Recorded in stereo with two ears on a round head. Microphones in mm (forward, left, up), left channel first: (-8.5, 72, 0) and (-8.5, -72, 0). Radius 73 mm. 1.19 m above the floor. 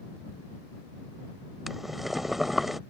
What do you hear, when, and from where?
1.7 s boiling: centre (ahead or behind)